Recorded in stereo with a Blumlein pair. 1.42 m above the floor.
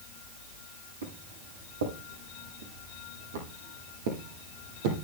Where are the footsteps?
70° right, 5 m; by 5.0 s 50° right, 3 m.